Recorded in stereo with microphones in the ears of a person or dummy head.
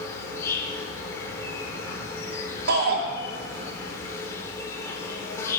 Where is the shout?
60° right (ahead or behind), 2.5 m.